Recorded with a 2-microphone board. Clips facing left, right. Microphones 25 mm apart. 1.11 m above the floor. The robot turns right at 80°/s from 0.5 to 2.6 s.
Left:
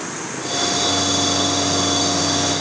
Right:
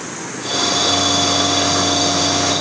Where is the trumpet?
No trumpet in this recording.